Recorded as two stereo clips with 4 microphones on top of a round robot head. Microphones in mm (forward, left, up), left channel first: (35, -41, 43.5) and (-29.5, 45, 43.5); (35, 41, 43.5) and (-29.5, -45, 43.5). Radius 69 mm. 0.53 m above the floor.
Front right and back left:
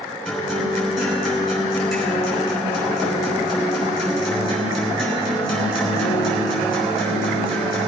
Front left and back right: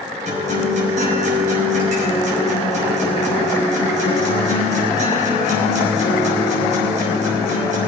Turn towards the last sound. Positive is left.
turn(degrees=-145)